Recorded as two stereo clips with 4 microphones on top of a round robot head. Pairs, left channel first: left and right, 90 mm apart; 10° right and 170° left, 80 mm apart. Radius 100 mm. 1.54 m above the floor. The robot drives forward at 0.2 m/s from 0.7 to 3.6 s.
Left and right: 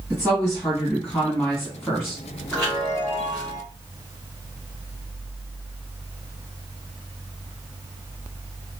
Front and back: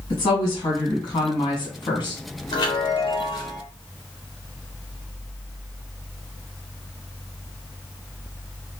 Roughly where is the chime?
Ahead.